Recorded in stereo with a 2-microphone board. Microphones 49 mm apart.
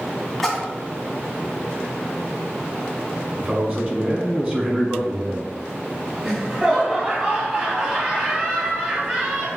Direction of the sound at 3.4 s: 30° right (ahead or behind).